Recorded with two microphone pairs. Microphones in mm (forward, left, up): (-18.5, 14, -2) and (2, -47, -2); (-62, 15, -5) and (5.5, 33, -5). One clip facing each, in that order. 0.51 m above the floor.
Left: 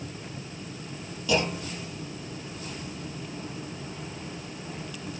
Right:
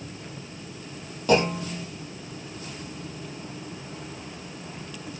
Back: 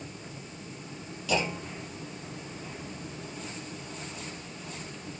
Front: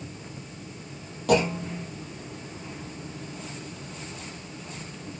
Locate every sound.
1.3 s a clunk: 25° right, 3.5 m